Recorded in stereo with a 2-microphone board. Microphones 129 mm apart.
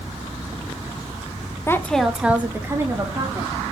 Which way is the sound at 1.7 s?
20° left (ahead or behind).